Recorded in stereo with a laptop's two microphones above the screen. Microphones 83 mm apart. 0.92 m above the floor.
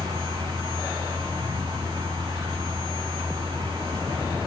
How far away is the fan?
About 6 m.